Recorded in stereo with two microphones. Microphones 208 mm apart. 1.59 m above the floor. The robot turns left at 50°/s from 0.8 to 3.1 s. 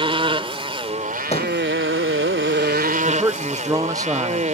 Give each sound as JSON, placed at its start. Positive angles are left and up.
{"t": 0.0, "sound": "a motorcycle", "azimuth_deg": -25}
{"t": 1.3, "sound": "a thud", "side_deg": 30}
{"t": 3.0, "sound": "a man speaking", "side_deg": -20}